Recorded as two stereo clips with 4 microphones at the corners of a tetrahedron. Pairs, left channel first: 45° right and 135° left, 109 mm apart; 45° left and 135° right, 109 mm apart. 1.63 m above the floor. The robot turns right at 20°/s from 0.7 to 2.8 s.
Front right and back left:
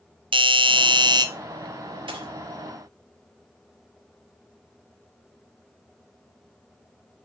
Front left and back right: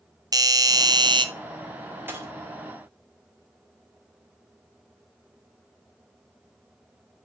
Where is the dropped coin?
160° left, 2 m; by 2.3 s 165° left, 2 m.